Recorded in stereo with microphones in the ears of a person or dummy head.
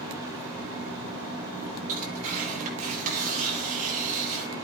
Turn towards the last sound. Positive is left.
turn(degrees=-40)  # may be behind; listen again after turning